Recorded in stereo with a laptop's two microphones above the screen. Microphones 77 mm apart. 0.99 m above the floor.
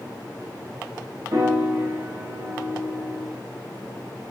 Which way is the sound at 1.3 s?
40° right (ahead or behind).